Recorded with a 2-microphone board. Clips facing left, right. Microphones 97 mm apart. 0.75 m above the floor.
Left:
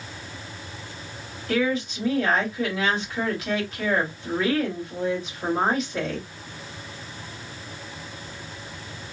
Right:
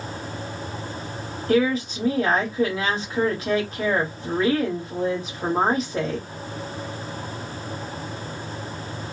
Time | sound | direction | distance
1.5 | a woman speaking | 35° right (ahead or behind) | 1.5 m